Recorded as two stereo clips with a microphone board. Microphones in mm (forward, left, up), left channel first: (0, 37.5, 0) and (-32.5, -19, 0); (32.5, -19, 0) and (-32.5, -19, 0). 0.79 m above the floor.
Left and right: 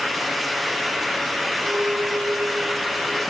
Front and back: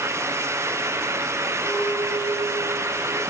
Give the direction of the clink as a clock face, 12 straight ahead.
2 o'clock.